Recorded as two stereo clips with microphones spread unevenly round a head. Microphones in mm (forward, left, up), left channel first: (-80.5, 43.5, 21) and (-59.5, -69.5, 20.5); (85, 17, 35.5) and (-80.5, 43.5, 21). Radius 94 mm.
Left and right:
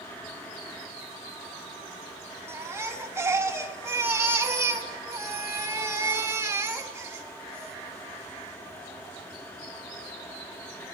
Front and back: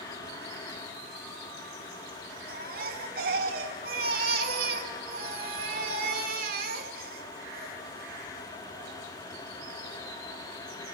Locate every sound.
2.5 s a baby crying: 145° right, 1.7 m